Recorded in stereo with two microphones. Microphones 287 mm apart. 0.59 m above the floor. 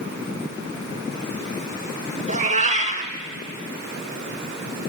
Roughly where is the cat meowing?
Right.